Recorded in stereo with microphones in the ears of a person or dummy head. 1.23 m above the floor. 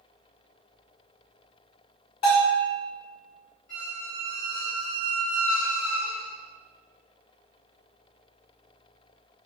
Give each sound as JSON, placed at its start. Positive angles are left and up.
{"t": 2.2, "sound": "a bell", "side_deg": 50, "distance_m": 1.7}
{"t": 3.7, "sound": "a squeak", "side_deg": 55, "distance_m": 1.7}